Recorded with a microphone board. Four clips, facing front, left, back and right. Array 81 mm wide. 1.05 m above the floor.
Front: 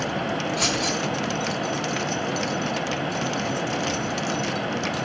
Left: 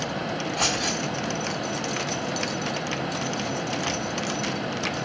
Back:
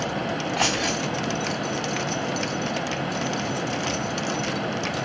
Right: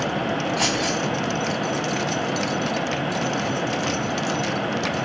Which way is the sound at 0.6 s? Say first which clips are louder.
Right 4 dB, back 1 dB; 170° right.